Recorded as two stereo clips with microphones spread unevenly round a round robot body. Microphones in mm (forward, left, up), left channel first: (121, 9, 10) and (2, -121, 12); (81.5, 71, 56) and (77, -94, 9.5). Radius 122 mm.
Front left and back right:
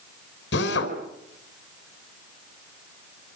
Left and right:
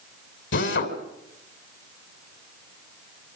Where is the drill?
85° left, 3.5 m.